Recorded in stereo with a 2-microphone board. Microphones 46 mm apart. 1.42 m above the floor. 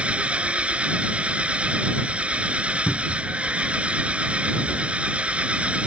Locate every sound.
0.0 s an engine running: 25° right (ahead or behind)
2.9 s a cupboard door: 55° left (ahead or behind)